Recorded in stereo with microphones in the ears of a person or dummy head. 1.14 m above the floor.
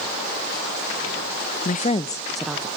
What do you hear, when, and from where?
1.6 s a woman speaking: 40° left (ahead or behind), 0.8 m; by 2.7 s 10° right (ahead or behind), 0.9 m